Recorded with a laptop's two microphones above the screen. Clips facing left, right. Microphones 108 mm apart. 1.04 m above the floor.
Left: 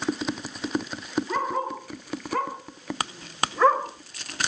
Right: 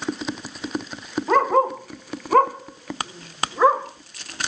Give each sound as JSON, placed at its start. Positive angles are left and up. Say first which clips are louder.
{"t": 1.3, "sound": "a dog barking", "louder": "right 14 dB", "side_deg": -75, "distance_m": 2.5}